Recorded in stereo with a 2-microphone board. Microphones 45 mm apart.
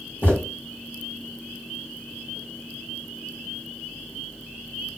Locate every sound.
0.2 s footsteps: 45° left (ahead or behind), 2.5 m